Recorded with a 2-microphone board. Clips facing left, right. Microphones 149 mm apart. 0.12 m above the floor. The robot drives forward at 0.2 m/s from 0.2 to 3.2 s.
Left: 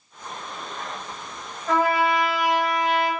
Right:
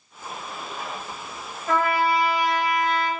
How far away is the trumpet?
About 1.8 m.